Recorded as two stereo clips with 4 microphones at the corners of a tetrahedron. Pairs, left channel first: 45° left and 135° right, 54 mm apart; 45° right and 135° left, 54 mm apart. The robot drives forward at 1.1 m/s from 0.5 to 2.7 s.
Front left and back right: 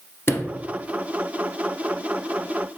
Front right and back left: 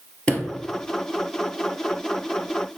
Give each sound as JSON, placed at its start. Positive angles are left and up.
{"t": 0.3, "sound": "a sliding door", "azimuth_deg": 20, "distance_m": 1.3}